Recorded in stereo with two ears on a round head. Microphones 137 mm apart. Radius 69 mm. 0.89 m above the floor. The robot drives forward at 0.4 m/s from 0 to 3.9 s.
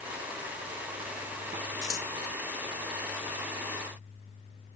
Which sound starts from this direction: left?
Scissors, at 1.8 s.